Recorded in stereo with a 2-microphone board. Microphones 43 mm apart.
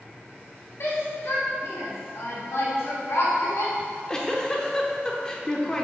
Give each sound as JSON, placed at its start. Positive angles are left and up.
{"t": 0.8, "sound": "a shout", "side_deg": 80, "distance_m": 2.0}
{"t": 3.8, "sound": "a giggle", "side_deg": 15, "distance_m": 0.9}